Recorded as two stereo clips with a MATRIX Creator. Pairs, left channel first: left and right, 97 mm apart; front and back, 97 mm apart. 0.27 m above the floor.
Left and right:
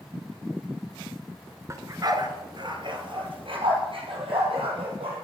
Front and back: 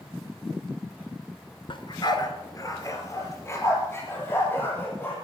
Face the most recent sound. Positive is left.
turn(degrees=-70)